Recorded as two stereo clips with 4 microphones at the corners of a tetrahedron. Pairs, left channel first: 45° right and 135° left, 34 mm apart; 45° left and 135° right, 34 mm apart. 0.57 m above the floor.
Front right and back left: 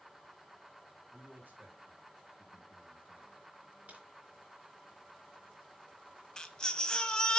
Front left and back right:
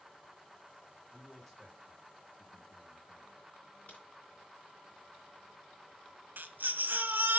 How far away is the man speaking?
About 4 m.